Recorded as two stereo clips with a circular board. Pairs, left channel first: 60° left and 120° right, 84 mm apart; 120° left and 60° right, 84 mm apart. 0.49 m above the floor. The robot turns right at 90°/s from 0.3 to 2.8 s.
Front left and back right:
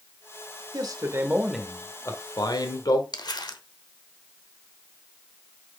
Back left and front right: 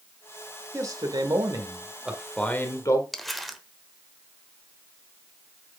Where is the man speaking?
105° right, 1.4 m; by 3.0 s 80° left, 1.4 m.